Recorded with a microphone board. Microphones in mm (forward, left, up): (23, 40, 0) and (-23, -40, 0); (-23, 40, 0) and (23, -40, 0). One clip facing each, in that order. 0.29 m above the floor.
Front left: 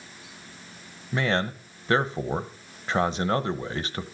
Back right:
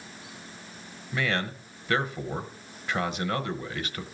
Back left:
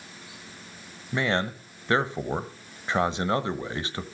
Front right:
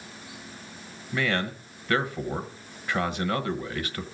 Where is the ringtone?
No ringtone in this recording.